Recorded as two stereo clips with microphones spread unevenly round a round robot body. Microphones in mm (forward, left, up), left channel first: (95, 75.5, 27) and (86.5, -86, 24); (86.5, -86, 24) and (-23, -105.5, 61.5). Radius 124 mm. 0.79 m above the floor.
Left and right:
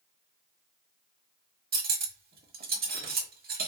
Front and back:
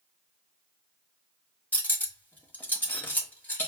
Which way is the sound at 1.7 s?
65° right.